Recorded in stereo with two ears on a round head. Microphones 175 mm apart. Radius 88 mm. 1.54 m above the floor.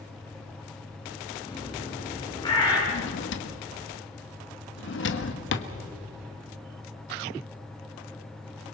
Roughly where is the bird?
Left.